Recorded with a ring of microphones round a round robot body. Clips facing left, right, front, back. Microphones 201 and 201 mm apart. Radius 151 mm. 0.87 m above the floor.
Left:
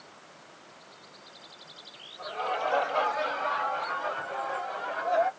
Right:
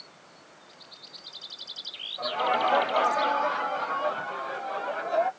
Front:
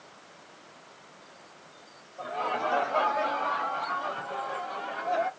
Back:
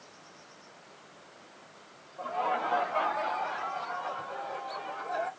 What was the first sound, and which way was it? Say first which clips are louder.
Laughter: right 5 dB, even; 80° right.